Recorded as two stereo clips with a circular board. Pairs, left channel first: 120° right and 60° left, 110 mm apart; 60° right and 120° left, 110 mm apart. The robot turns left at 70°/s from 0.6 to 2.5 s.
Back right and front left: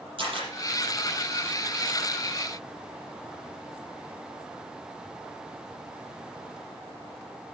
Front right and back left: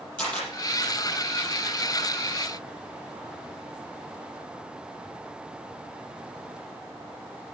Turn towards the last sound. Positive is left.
turn(degrees=-115)